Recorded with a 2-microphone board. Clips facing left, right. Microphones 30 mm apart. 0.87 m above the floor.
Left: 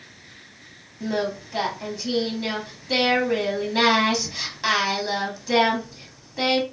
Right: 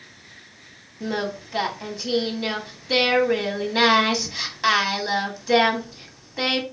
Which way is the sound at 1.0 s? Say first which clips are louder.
Left 1 dB; 15° right (ahead or behind).